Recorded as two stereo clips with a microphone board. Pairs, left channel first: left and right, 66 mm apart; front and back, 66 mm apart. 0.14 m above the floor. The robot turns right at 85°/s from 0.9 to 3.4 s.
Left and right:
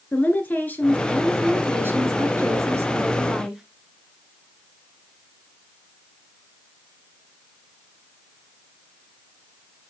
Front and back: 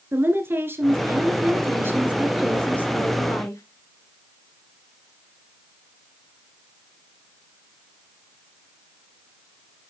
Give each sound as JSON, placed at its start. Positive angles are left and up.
{"t": 0.1, "sound": "a woman speaking", "azimuth_deg": 140, "distance_m": 1.8}